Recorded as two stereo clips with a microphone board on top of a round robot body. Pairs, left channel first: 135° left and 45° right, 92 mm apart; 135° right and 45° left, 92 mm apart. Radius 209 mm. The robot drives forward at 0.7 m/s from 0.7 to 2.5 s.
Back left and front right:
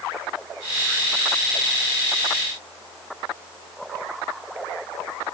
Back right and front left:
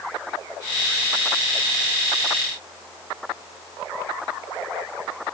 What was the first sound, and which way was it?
Only background noise.